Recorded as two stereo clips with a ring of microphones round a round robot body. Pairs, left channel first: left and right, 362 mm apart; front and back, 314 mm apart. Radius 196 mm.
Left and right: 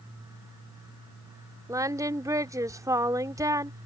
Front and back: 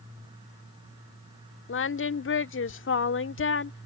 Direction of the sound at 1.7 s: 15° right.